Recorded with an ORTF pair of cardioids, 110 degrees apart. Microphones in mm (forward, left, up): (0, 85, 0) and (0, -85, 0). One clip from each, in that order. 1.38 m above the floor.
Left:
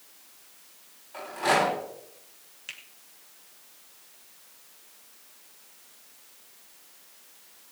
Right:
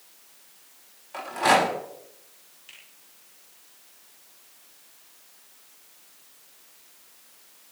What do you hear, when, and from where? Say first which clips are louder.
1.1 s a rattle: right 4 dB; 40° right, 6 m
2.7 s a finger snap: left 7 dB; 60° left, 3.5 m